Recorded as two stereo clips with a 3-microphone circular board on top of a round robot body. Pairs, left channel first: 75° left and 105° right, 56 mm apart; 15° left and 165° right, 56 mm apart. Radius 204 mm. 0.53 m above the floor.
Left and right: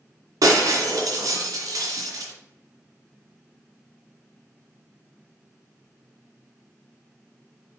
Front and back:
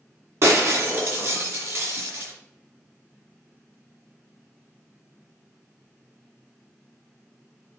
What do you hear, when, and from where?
0.4 s breaking glass: 125° right, 2 m